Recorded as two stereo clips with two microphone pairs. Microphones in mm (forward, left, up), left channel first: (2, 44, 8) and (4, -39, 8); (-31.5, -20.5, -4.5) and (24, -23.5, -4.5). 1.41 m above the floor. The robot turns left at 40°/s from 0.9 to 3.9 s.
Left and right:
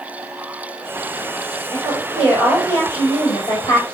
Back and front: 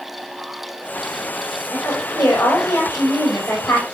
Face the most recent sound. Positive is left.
turn(degrees=100)